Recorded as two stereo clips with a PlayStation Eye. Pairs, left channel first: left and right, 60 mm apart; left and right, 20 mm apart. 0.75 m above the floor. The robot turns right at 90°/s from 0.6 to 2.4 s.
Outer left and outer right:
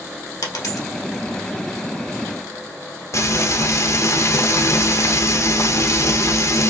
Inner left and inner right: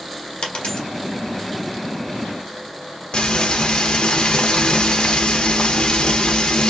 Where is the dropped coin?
80° left, 1.1 m; by 0.9 s 75° left (ahead or behind), 1.1 m.